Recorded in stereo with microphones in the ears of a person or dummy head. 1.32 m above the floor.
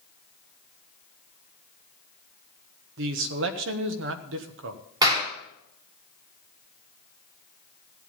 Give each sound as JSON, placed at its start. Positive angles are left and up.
{"t": 3.0, "sound": "a man speaking", "side_deg": -55, "distance_m": 1.2}
{"t": 5.0, "sound": "a clap", "side_deg": -20, "distance_m": 3.0}